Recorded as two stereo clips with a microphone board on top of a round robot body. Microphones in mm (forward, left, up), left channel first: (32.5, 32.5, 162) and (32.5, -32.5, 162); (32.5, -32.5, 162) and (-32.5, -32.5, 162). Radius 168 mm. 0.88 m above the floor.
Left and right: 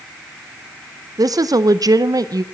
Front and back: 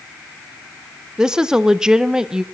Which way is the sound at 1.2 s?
100° right.